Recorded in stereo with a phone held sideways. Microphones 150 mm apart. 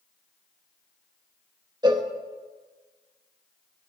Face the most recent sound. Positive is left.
turn(degrees=-30)  # may be behind; listen again after turning